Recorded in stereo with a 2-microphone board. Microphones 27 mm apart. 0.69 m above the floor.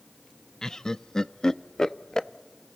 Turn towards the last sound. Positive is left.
turn(degrees=25)  # may be behind; listen again after turning